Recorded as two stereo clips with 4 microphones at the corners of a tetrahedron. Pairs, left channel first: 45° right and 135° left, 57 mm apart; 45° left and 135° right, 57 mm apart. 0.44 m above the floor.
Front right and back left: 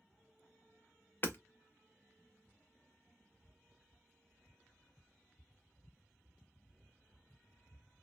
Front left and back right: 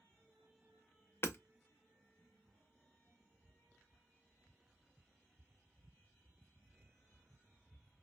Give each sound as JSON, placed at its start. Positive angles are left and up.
{"t": 1.2, "sound": "hammering", "azimuth_deg": 5, "distance_m": 0.6}